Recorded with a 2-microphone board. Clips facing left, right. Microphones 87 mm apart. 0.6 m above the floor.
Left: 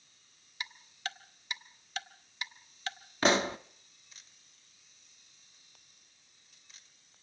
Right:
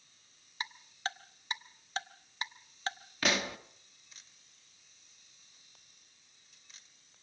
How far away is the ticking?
About 0.8 m.